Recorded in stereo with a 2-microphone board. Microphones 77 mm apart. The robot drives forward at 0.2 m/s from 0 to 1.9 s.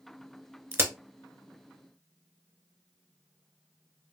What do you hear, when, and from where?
0.7 s a crack: 35° right (ahead or behind), 0.6 m